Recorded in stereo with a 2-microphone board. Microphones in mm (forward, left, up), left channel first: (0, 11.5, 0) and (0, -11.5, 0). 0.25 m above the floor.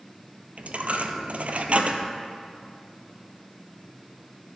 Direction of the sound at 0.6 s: 70° right (ahead or behind).